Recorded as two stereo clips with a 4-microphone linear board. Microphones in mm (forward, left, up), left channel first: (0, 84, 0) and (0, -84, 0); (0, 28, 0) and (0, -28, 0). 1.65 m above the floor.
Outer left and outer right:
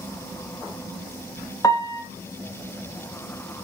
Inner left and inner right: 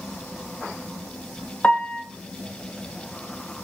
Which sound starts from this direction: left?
A piano, at 1.6 s.